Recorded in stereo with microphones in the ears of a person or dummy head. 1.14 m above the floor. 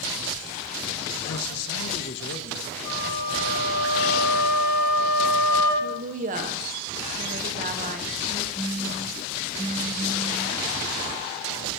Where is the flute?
40° left (ahead or behind), 2.5 m.